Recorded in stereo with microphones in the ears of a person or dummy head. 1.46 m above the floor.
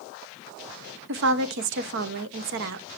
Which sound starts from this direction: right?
A woman speaking, at 1.1 s.